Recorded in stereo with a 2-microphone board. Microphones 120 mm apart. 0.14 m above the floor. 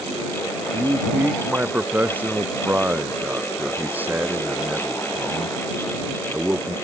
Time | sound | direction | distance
0.7 | a man speaking | 15° right (ahead or behind) | ?